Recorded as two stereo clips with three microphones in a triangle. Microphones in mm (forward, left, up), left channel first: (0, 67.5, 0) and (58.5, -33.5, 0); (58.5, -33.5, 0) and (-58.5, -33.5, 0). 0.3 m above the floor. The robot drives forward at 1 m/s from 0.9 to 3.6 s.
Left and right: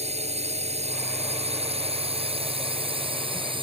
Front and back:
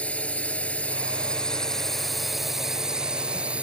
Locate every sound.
0.0 s a drone: 80° right; by 3.6 s 100° right